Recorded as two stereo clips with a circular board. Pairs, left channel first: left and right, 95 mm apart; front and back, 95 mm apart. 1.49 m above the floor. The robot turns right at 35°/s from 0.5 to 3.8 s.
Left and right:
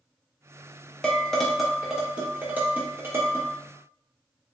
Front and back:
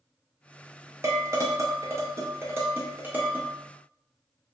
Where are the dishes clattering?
160° left, 0.7 m; by 3.5 s 110° right, 0.7 m.